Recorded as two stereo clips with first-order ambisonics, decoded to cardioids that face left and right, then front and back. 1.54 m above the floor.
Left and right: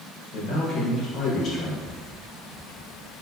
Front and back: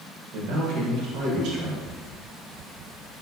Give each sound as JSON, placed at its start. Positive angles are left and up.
{"t": 0.3, "sound": "a man speaking", "azimuth_deg": 145, "distance_m": 1.5}